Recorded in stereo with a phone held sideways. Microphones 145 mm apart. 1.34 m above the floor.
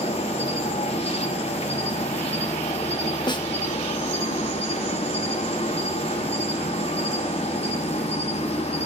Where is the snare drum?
30° left (ahead or behind), 0.8 m.